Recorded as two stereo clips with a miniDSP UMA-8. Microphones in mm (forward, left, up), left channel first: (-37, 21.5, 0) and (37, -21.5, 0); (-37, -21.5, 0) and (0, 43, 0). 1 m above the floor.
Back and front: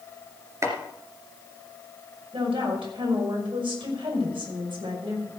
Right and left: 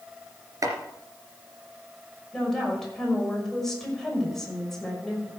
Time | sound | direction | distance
0.6 | chopping | 25° left | 2.5 m
2.3 | a woman speaking | 35° right | 5.5 m